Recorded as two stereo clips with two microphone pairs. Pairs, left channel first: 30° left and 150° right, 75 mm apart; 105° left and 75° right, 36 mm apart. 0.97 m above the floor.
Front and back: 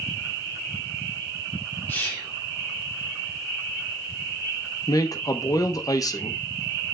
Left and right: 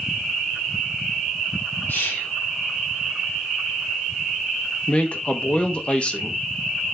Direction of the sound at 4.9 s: 55° left.